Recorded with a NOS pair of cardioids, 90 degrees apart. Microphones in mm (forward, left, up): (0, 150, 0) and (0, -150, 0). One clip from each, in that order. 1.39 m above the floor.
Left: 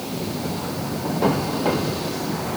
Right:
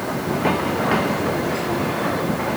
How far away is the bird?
No bird in this recording.